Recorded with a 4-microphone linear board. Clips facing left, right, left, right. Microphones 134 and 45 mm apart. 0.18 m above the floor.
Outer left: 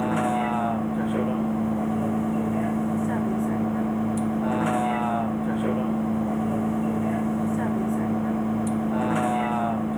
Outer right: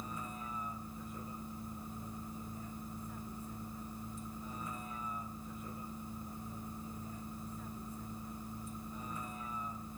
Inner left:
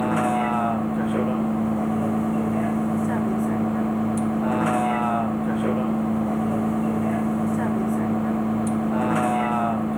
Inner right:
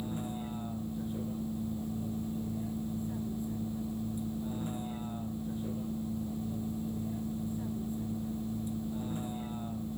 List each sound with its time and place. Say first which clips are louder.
0.0 s a vehicle: outer left 22 dB, inner left 17 dB; 85° left